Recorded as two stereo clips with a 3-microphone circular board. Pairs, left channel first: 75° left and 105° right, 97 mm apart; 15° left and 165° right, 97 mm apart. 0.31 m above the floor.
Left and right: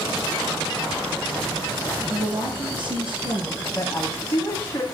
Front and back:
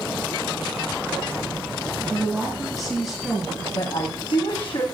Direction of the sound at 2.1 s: 75° right.